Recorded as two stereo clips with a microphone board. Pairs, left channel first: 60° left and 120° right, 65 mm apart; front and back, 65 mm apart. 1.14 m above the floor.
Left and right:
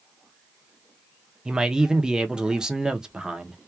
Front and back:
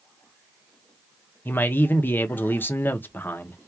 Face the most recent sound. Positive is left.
turn(degrees=-45)